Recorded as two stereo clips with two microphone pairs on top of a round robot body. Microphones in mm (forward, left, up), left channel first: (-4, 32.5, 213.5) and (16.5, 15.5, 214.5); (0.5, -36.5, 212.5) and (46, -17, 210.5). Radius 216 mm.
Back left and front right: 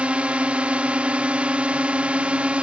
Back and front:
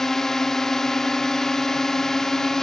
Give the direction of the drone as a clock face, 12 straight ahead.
3 o'clock.